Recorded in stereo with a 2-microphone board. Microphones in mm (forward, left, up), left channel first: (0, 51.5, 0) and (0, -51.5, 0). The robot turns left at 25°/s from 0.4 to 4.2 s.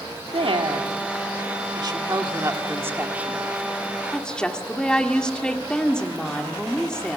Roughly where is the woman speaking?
Right.